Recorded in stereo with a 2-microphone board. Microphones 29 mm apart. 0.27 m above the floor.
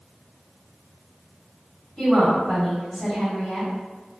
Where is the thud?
No thud in this recording.